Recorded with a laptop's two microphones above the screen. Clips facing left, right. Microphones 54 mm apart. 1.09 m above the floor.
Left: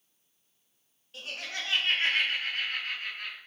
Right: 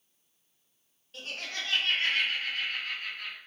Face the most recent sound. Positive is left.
turn(degrees=40)  # may be behind; listen again after turning